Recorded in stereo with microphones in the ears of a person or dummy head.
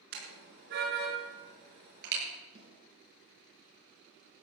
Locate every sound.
0.1 s a car horn: 65° right (ahead or behind), 6 m; by 2.2 s 60° right (ahead or behind), 8 m
2.5 s a snare drum: 30° right (ahead or behind), 4 m